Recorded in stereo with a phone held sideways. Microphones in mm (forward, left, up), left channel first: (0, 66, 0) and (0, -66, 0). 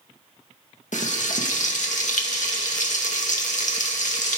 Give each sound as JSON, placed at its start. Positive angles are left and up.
{"t": 0.9, "sound": "frying", "side_deg": 75, "distance_m": 2.0}